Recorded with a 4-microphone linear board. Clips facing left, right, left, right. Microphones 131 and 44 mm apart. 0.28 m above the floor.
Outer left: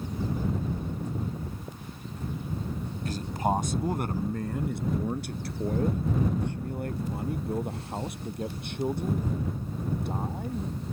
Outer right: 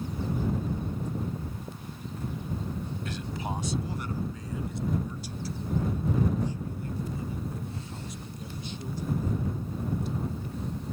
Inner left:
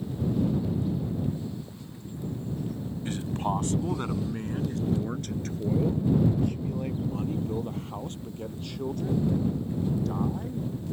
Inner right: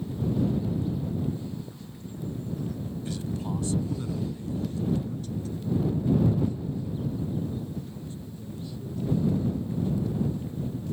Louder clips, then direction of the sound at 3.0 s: Outer left 10 dB, inner left 5 dB; 40° left (ahead or behind).